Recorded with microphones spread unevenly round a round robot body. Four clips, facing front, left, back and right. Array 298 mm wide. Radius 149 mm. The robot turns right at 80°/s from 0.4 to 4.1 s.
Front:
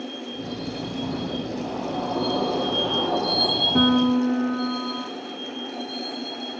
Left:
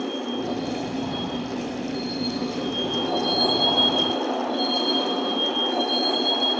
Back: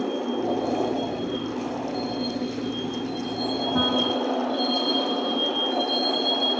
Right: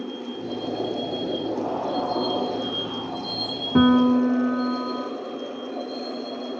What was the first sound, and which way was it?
A vehicle, 175° left.